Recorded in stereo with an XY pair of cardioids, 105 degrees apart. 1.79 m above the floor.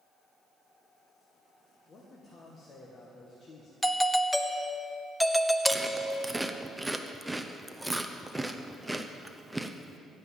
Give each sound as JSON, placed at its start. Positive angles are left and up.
{"t": 1.9, "sound": "a man speaking", "azimuth_deg": 40, "distance_m": 1.8}
{"t": 3.8, "sound": "a doorbell", "azimuth_deg": 5, "distance_m": 0.7}
{"t": 5.7, "sound": "chewing", "azimuth_deg": -5, "distance_m": 0.8}